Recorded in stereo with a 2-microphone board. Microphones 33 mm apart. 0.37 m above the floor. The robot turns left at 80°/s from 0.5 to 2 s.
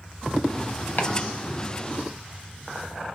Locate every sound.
1.0 s chopping: 70° left (ahead or behind), 1.0 m; by 1.1 s 65° left (ahead or behind), 1.0 m